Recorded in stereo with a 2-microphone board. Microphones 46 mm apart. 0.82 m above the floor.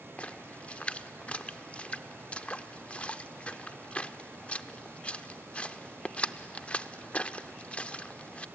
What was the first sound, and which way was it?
A splash, 25° left (ahead or behind).